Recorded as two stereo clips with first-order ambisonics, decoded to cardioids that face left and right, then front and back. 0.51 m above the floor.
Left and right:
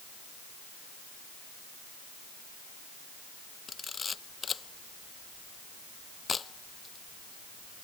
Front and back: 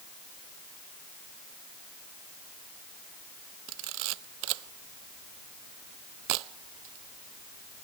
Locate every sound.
3.7 s a camera shutter: 165° left